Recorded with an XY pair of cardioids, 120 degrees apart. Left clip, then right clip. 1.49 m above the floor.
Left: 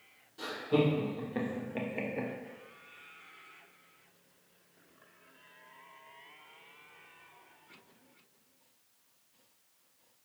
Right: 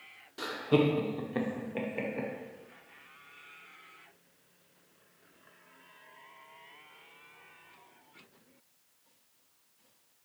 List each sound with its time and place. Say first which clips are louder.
0.4 s laughter: right 2 dB; 60° right, 0.7 m; by 2.3 s 10° left, 0.9 m